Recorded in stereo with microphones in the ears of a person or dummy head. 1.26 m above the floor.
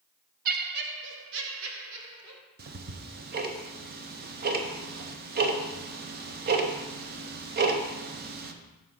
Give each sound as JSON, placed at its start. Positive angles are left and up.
{"t": 0.5, "sound": "laughter", "side_deg": -45, "distance_m": 0.8}
{"t": 2.6, "sound": "ticking", "side_deg": -40, "distance_m": 0.7}